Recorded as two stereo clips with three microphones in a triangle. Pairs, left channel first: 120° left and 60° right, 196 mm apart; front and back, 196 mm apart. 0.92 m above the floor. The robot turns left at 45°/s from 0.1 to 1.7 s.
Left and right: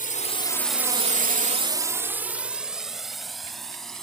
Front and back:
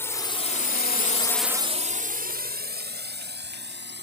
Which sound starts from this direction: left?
A drone, at 0.0 s.